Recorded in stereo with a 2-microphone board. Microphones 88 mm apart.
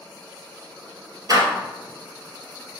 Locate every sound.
1.3 s a door slam: 45° right (ahead or behind), 1.9 m